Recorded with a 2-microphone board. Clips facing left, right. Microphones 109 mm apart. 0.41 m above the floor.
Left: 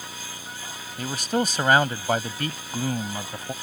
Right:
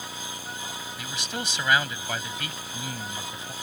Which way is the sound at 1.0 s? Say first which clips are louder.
Left 11 dB; 45° left (ahead or behind).